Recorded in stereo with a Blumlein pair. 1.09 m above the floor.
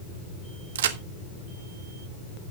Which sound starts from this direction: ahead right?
A crack, at 0.8 s.